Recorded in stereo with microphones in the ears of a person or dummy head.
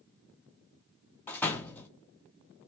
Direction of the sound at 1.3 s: 10° left (ahead or behind).